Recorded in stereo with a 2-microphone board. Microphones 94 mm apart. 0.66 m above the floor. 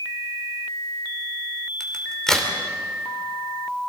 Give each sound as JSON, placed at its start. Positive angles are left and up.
{"t": 1.8, "sound": "a crack", "side_deg": 5, "distance_m": 2.5}